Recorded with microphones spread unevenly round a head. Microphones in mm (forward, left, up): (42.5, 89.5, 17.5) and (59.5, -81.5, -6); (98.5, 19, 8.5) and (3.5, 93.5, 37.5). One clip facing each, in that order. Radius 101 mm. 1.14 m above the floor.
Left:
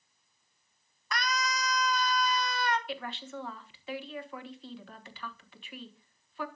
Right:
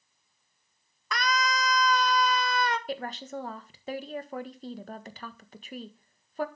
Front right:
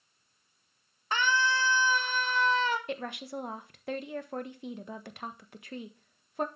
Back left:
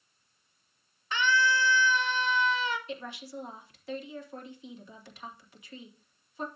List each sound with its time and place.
1.1 s a scream: 95° right, 1.2 m
2.9 s a woman speaking: 45° right, 1.4 m